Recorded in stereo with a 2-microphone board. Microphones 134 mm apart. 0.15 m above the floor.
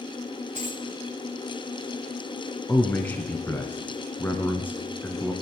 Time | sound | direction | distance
0.6 | a dropped coin | 60° right (ahead or behind) | 2.5 m
2.7 | a man speaking | 15° left (ahead or behind) | 1.3 m